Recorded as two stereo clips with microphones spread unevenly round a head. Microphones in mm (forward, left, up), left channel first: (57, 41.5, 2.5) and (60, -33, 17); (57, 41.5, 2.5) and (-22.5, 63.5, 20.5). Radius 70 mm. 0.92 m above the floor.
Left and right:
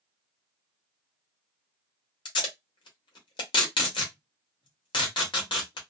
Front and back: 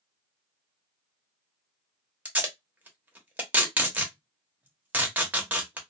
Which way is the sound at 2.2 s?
95° left.